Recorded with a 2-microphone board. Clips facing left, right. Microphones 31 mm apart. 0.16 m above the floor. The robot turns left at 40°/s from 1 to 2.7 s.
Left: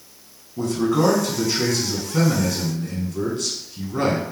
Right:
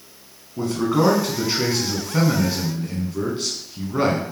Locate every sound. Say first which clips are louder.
0.6 s a man speaking: even; 25° right (ahead or behind), 1.2 m; by 4.2 s 20° right (ahead or behind), 1.2 m